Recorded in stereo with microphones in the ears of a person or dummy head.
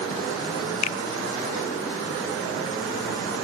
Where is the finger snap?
35° left (ahead or behind), 0.5 m.